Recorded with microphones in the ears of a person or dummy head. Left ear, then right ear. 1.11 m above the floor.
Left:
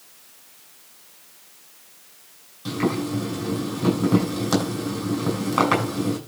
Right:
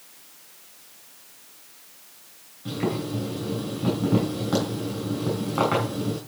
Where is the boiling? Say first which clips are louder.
Left 3 dB; 85° left, 6 m.